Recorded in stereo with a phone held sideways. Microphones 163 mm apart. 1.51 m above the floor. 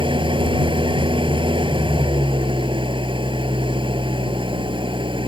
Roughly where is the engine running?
Right.